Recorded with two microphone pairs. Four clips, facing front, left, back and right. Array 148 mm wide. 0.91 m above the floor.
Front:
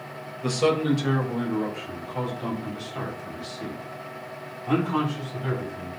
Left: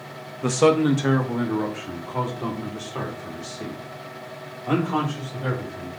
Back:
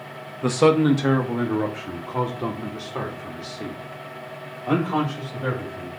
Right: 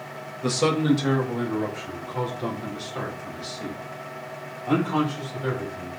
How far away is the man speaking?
About 1.0 m.